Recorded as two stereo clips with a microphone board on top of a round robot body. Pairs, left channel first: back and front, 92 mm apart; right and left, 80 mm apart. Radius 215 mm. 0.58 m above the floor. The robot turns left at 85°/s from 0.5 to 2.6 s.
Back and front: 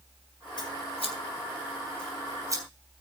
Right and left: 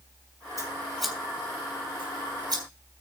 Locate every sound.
0.6 s scissors: 140° right, 3 m; by 2.6 s 50° left, 3 m